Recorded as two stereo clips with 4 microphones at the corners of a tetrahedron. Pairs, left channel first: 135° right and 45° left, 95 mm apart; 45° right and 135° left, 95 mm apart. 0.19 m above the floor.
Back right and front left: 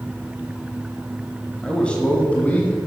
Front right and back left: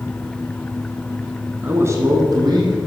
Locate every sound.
1.6 s a man speaking: 160° left, 1.0 m; by 2.8 s 155° left, 1.9 m